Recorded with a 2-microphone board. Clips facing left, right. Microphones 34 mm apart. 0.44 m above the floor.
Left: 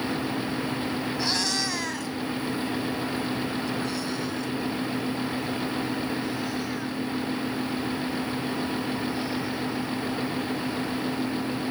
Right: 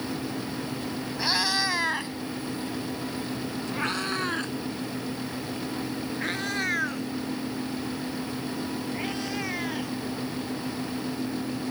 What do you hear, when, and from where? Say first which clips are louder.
1.2 s a cat meowing: right 4 dB; 15° right (ahead or behind); by 10.0 s 70° right (ahead or behind)